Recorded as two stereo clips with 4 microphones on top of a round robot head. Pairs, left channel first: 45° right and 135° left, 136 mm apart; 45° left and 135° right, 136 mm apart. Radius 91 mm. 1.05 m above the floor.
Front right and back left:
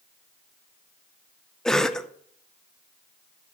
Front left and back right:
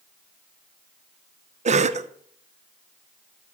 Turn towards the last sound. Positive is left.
turn(degrees=-135)